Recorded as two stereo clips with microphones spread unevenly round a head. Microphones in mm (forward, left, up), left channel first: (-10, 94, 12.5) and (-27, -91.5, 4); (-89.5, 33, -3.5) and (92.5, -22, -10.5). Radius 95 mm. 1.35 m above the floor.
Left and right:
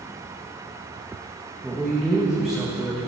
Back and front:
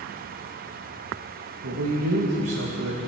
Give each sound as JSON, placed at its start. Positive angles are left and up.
{"t": 1.6, "sound": "a man speaking", "azimuth_deg": -5, "distance_m": 2.0}